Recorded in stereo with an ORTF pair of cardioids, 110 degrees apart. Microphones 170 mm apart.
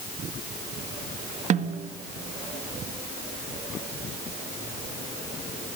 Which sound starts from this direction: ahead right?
A snare drum, at 1.5 s.